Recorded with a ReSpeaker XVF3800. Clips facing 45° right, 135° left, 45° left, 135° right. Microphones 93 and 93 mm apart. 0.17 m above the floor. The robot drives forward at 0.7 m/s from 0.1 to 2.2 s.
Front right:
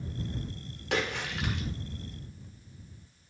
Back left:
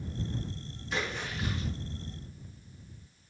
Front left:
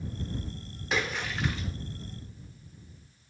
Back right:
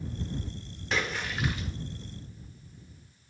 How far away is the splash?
About 1.4 m.